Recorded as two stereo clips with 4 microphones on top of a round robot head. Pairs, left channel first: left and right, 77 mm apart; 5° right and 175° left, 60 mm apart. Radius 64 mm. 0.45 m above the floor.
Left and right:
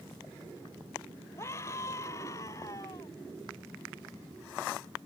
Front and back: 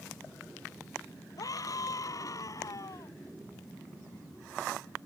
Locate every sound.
1.4 s a scream: 25° left; by 3.1 s 30° left